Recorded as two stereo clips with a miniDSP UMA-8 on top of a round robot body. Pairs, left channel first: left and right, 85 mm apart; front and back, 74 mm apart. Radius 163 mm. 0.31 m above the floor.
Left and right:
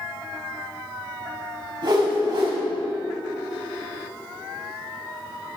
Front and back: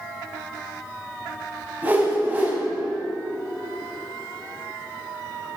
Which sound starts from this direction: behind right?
A whoosh, at 1.8 s.